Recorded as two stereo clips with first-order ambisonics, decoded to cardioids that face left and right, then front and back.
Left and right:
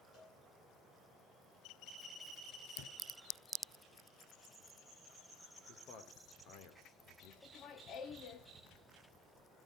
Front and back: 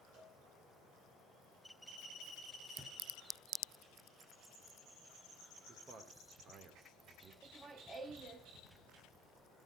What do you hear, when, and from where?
0.1 s a cowbell: 135° left, 9.5 m
2.8 s a thud: 105° left, 3.5 m
5.7 s a man speaking: 125° left, 2.5 m
7.4 s laughter: 125° left, 1.5 m